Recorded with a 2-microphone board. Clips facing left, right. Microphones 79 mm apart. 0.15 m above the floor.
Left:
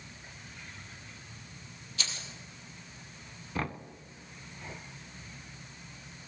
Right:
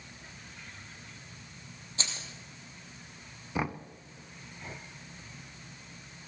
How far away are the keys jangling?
About 3 m.